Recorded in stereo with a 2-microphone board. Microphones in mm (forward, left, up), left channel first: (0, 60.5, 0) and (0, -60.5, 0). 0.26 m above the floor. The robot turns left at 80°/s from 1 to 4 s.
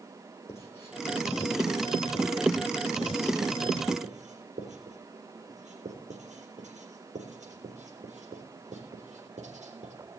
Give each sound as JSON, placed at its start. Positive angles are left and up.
{"t": 0.5, "sound": "writing", "side_deg": 25, "distance_m": 3.5}